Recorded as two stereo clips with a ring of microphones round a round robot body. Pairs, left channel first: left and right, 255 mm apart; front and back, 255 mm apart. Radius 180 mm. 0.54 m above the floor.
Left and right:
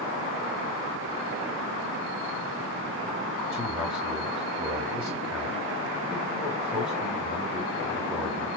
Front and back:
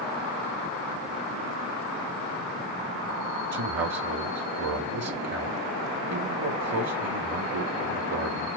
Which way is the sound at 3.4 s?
175° right.